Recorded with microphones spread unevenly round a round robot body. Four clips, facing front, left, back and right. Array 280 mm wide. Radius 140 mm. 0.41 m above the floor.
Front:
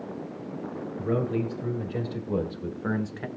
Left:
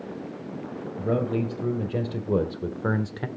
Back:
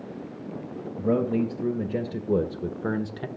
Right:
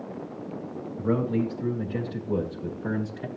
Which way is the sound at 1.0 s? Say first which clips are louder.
Even, back 4 dB; 155° left.